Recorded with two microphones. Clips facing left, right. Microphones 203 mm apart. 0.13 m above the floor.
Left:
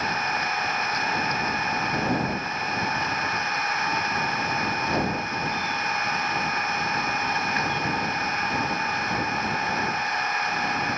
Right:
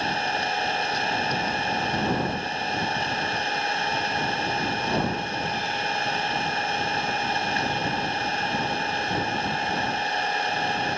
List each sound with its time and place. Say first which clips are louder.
0.0 s an engine running: right 2 dB; 30° right (ahead or behind)